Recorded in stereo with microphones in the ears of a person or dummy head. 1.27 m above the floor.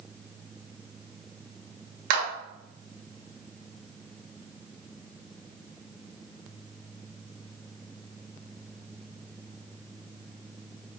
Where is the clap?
70° right (ahead or behind), 3.5 m.